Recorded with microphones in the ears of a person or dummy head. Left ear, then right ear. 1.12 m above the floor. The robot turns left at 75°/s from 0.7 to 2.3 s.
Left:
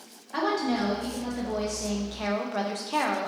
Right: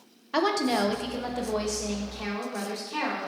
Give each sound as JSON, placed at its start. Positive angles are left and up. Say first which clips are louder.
{"t": 0.3, "sound": "a woman speaking", "louder": "right 2 dB", "azimuth_deg": -95, "distance_m": 0.5}